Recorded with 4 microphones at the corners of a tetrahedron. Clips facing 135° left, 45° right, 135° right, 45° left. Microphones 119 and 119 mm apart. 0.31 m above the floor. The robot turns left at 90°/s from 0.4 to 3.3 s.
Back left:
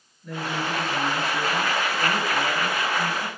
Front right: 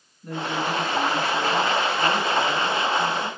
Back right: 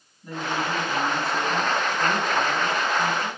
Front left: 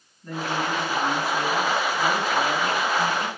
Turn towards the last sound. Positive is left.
turn(degrees=45)